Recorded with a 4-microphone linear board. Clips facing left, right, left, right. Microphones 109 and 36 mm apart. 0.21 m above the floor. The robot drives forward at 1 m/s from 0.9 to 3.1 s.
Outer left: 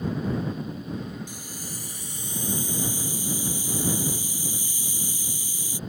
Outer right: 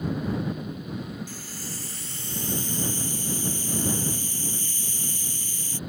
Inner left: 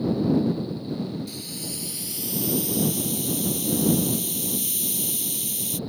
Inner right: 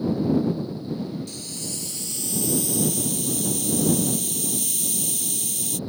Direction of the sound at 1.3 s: 15° left (ahead or behind).